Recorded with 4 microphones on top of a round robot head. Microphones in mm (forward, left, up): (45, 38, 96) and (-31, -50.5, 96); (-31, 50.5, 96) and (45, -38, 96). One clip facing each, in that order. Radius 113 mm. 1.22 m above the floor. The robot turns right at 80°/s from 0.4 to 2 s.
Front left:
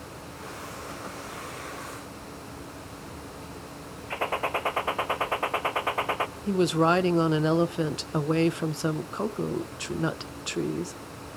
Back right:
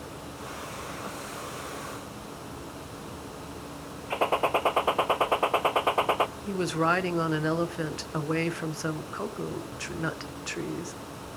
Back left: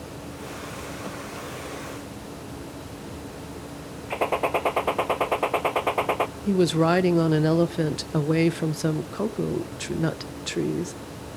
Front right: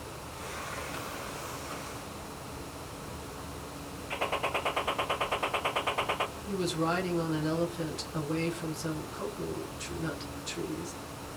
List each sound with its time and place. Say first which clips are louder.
4.1 s a gunshot: back right 4 dB, back left 9 dB; 165° left, 0.7 m
6.5 s a woman speaking: front left 8 dB, back left 11 dB; 120° left, 1.0 m